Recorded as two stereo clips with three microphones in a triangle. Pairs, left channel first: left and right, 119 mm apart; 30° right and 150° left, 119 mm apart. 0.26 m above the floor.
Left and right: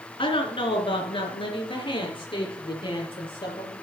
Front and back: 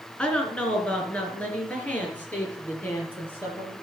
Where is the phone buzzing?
I don't hear a phone buzzing.